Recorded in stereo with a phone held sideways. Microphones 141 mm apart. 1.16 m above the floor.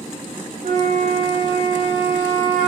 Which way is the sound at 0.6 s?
80° right.